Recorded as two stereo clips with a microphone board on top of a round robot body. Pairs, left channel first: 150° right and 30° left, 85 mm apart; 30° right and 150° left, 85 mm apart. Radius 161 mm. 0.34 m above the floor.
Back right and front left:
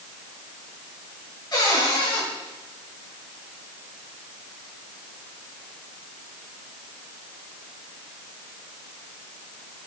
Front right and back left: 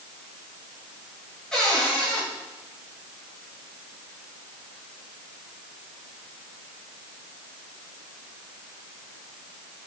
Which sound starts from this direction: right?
A cupboard door, at 1.5 s.